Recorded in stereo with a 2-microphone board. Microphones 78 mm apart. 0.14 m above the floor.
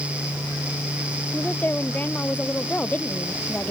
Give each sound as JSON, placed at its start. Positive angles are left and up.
{"t": 1.3, "sound": "a woman speaking", "side_deg": 20}